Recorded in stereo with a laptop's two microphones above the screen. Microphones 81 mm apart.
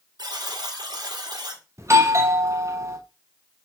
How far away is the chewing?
I don't hear chewing.